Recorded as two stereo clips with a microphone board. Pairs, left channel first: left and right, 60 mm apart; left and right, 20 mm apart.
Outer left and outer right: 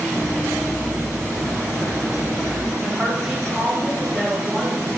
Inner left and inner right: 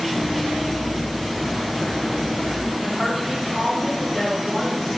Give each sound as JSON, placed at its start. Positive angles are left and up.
{"t": 0.1, "sound": "running footsteps", "side_deg": 35, "distance_m": 1.5}
{"t": 2.8, "sound": "a woman speaking", "side_deg": -15, "distance_m": 2.5}